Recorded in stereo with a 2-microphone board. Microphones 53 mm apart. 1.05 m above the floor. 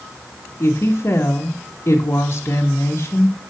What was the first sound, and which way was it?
A woman speaking, 55° left (ahead or behind).